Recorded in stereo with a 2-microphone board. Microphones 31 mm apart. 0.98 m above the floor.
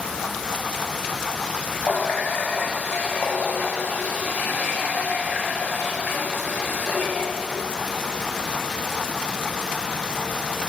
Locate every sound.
1.8 s a running tap: 75° left (ahead or behind), 0.8 m